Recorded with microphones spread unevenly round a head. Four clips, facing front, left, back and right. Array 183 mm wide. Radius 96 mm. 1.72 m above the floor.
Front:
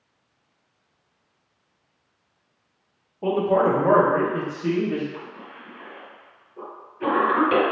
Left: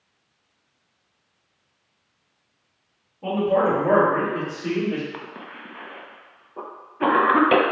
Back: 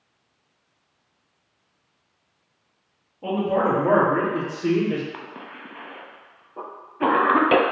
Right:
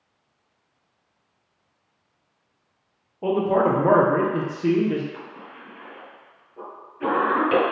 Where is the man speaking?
50° right, 1.1 m; by 5.0 s 150° right, 0.9 m.